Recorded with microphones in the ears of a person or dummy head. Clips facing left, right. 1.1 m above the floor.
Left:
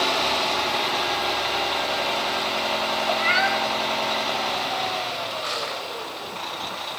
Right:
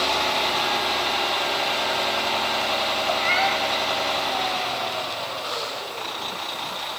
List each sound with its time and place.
3.1 s a cat meowing: 25° left (ahead or behind), 2.5 m
5.4 s crushing: 35° left (ahead or behind), 3.5 m